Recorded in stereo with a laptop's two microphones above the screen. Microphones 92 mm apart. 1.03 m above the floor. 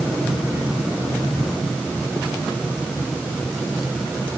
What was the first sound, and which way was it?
Only background noise.